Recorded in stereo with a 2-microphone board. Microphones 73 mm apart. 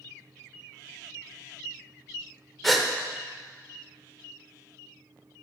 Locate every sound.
2.6 s a gasp: centre (ahead or behind), 0.7 m